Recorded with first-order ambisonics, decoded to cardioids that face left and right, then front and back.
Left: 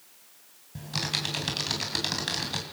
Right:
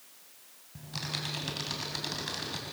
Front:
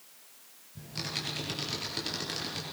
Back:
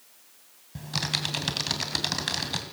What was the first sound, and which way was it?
Typing on a keyboard, 155° left.